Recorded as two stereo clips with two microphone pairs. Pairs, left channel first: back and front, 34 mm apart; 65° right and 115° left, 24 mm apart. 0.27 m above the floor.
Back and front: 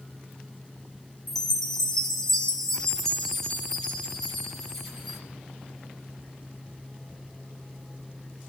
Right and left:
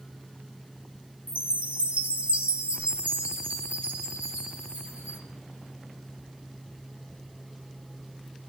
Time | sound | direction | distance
1.3 | a chime | 105° left | 3 m